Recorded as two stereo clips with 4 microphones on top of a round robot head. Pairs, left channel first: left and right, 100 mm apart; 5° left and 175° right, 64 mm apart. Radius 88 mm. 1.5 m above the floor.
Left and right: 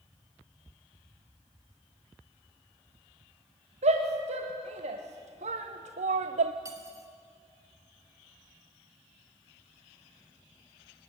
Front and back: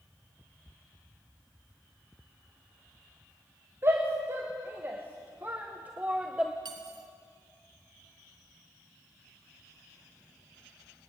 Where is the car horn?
I don't hear a car horn.